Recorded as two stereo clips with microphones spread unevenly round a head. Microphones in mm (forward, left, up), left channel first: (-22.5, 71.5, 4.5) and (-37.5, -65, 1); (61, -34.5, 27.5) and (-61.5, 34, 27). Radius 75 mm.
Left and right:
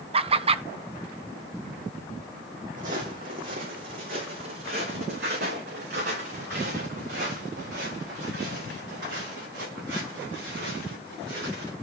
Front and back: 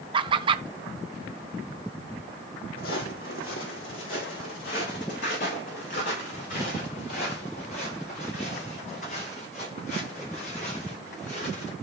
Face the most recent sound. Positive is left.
turn(degrees=-75)